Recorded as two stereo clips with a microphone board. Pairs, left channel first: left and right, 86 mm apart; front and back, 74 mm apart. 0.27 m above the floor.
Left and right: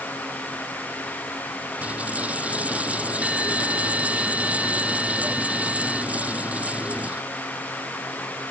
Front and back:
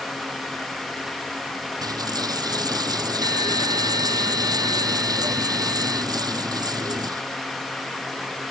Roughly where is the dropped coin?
Behind.